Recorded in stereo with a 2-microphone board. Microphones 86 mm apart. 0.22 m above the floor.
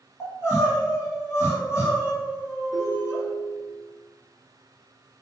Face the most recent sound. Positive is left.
turn(degrees=55)  # may be behind; listen again after turning